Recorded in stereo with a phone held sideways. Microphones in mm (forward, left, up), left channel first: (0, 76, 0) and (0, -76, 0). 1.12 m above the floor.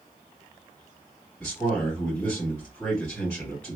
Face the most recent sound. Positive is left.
turn(degrees=15)  # may be behind; listen again after turning